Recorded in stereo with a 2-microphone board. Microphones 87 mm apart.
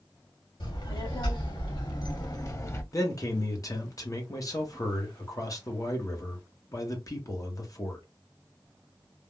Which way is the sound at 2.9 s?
40° left (ahead or behind).